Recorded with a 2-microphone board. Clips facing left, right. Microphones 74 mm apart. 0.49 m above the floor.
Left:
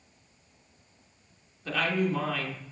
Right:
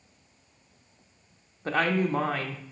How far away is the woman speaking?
About 0.8 m.